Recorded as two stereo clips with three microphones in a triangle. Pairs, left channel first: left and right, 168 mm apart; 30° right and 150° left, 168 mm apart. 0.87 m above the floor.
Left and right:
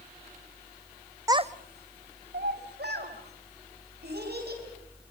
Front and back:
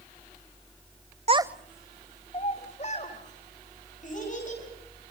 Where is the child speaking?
160° right, 0.6 m; by 4.6 s 70° right, 5.5 m.